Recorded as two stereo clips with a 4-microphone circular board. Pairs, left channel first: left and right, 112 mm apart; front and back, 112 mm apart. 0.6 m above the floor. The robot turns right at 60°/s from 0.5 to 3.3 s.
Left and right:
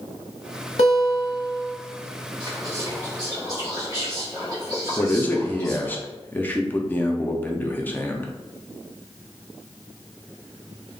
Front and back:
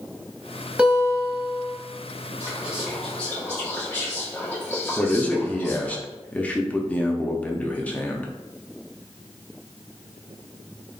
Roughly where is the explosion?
No explosion in this recording.